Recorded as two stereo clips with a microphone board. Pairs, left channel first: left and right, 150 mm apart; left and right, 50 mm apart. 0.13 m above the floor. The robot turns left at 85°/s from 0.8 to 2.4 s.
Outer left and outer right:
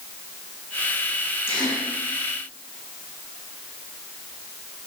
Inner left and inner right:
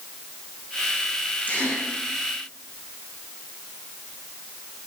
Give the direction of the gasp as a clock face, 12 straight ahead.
11 o'clock.